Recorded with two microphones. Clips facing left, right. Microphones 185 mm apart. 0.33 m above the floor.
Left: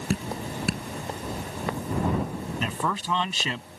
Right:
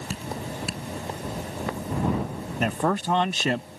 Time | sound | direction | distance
0.1 | dripping | 65° left (ahead or behind) | ?
2.6 | a man speaking | 55° right (ahead or behind) | ?